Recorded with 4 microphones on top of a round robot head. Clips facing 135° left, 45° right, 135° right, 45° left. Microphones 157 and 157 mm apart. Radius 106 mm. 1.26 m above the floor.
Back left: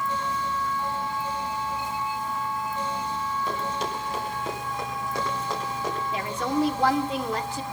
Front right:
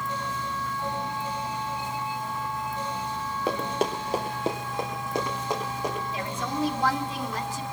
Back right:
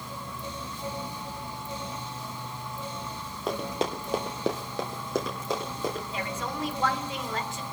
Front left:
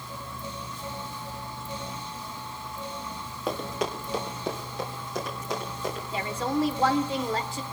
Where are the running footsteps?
45° right, 1.5 m; by 6.0 s 125° right, 4 m.